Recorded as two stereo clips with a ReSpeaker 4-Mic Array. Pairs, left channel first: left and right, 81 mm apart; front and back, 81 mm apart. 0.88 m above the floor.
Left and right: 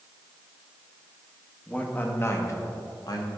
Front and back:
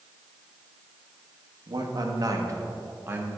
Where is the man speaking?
160° left, 1.0 m; by 3.3 s 115° left, 1.3 m.